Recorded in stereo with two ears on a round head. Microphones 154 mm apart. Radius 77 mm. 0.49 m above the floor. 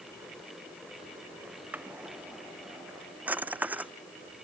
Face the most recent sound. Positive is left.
turn(degrees=-10)  # may be behind; listen again after turning